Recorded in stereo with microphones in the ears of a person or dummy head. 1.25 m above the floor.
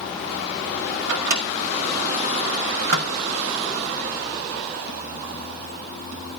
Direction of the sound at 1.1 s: 60° right (ahead or behind).